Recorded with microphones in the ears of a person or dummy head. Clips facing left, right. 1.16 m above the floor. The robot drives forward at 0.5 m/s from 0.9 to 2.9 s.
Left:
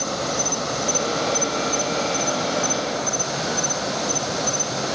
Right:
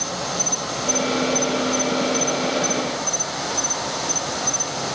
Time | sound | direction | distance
0.0 | an insect | 65° left (ahead or behind) | 2 m